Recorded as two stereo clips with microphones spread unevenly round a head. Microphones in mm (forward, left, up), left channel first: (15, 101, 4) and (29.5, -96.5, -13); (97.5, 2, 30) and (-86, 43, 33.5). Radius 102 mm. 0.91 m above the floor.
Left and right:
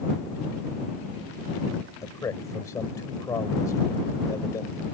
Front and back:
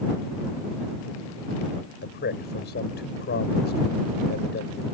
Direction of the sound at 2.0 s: 20° left.